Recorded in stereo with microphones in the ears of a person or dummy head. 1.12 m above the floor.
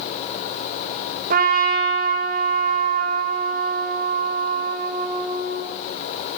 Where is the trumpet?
45° right (ahead or behind), 1.5 m.